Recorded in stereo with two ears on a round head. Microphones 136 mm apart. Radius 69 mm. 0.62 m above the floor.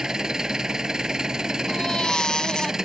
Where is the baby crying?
5° left (ahead or behind).